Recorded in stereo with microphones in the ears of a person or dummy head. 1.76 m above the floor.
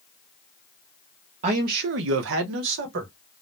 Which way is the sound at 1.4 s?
35° right (ahead or behind).